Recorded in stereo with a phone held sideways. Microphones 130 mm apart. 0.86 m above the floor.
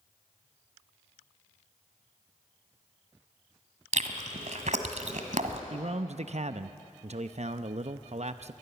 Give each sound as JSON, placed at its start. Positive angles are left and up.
{"t": 3.9, "sound": "chewing", "side_deg": -70, "distance_m": 1.5}
{"t": 5.7, "sound": "a man speaking", "side_deg": -60, "distance_m": 0.6}